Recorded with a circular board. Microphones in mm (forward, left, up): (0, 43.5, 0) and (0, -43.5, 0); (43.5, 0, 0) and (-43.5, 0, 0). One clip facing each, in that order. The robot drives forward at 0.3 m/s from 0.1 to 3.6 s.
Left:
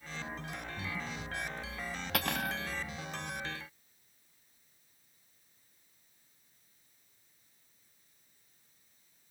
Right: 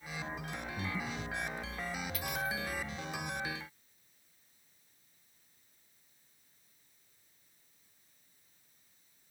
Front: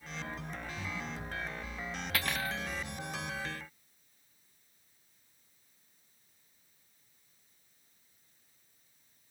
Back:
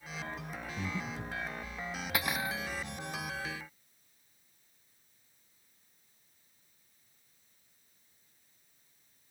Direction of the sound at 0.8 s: 160° right.